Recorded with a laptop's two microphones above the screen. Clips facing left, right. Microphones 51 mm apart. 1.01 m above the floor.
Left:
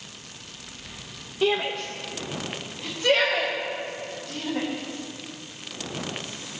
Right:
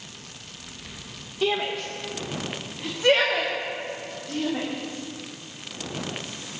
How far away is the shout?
About 0.9 m.